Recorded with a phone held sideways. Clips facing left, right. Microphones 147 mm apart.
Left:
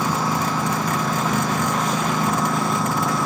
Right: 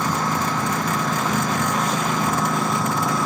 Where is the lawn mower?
5° left (ahead or behind); by 3.3 s centre (ahead or behind).